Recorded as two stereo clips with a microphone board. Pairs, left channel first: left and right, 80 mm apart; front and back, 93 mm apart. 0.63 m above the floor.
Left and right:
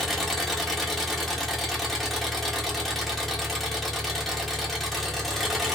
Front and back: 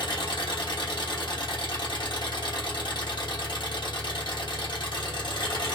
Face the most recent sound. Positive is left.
turn(degrees=0)